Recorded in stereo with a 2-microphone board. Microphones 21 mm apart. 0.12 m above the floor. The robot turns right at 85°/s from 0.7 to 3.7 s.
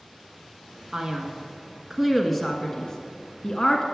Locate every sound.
0.9 s a man speaking: 25° right (ahead or behind), 1.3 m; by 3.9 s 30° left (ahead or behind), 1.3 m